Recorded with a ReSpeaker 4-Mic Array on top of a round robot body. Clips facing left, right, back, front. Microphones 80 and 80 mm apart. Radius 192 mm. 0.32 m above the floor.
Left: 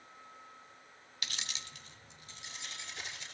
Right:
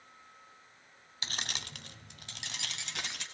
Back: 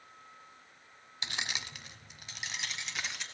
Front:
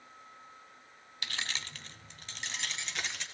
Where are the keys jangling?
125° right, 0.5 m; by 3.2 s 100° right, 3.5 m.